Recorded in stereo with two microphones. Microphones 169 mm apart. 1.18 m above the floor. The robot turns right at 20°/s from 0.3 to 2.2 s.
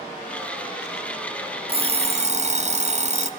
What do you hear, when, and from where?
1.7 s an alarm clock: 35° right (ahead or behind), 0.7 m; by 3.3 s 45° right (ahead or behind), 0.7 m